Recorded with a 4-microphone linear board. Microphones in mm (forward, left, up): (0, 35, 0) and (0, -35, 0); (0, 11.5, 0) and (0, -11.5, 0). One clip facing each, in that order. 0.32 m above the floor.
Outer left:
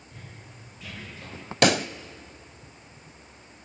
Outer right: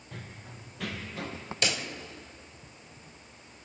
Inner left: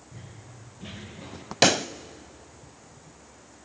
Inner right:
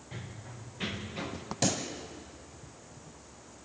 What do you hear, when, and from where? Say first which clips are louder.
0.1 s running footsteps: outer right 3 dB, inner right 4 dB; 85° right, 5 m; by 1.4 s 80° right, 5.5 m
1.6 s a pop: outer left 11 dB, inner left 11 dB; 65° left (ahead or behind), 0.6 m